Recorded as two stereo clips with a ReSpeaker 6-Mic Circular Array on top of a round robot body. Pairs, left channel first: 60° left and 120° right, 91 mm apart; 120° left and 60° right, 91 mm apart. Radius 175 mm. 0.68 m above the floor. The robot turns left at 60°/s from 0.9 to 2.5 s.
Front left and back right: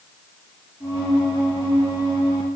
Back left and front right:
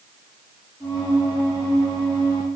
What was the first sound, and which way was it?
Only background noise.